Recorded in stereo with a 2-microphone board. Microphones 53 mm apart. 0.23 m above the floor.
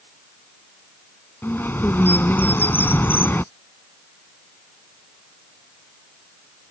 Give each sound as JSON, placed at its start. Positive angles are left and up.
{"t": 1.4, "sound": "a bird", "side_deg": 40}